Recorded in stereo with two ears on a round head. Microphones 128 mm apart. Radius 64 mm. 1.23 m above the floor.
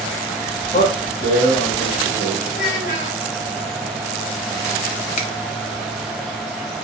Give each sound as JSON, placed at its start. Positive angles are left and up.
{"t": 0.7, "sound": "a man speaking", "side_deg": 65, "distance_m": 1.5}
{"t": 2.5, "sound": "a child speaking", "side_deg": 85, "distance_m": 3.5}
{"t": 5.2, "sound": "a finger snap", "side_deg": 45, "distance_m": 1.0}